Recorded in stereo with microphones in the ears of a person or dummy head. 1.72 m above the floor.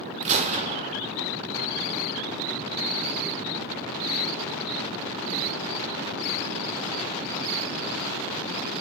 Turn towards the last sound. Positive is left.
turn(degrees=-35)  # may be behind; listen again after turning